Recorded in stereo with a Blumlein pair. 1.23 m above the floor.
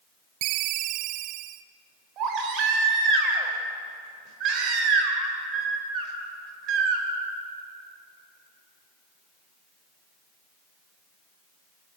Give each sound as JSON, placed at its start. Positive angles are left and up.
{"t": 0.4, "sound": "a ringtone", "azimuth_deg": -40, "distance_m": 0.7}
{"t": 2.2, "sound": "a baby crying", "azimuth_deg": -35, "distance_m": 4.0}